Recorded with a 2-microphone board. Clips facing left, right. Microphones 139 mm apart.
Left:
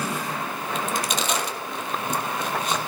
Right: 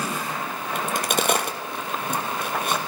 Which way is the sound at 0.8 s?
60° right (ahead or behind).